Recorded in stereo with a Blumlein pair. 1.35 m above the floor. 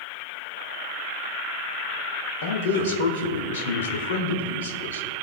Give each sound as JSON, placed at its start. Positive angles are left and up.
{"t": 2.4, "sound": "a man speaking", "azimuth_deg": 60, "distance_m": 1.6}